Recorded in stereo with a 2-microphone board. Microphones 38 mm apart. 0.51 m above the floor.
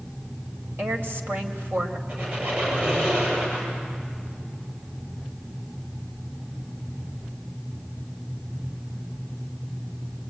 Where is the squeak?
50° right (ahead or behind), 8.5 m.